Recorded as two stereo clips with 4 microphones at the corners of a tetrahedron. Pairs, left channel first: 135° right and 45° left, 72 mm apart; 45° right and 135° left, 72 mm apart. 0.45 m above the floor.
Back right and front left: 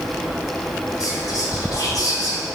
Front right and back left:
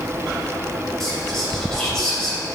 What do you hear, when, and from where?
1.0 s whispering: 130° right, 2.0 m